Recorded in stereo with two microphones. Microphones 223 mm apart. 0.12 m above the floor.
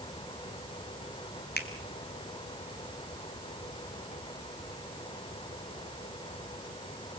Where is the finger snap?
45° left (ahead or behind), 2.0 m.